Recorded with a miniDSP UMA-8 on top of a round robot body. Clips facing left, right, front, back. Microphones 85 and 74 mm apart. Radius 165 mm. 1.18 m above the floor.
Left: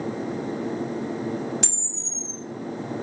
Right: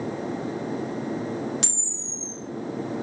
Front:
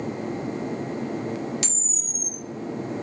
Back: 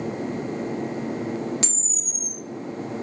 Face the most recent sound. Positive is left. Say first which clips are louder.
# left 1 dB, back 1 dB
turn(degrees=-120)